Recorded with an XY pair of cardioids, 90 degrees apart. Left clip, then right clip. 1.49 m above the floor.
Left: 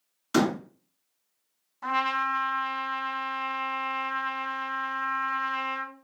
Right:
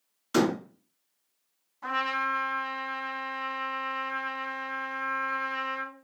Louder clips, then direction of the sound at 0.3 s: Even; 30° left.